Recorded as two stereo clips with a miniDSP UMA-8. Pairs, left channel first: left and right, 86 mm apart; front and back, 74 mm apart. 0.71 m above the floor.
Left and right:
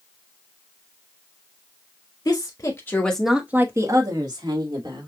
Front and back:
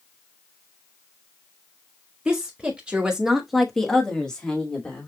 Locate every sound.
2.2 s a woman speaking: 115° left, 1.7 m; by 5.1 s 75° right, 2.5 m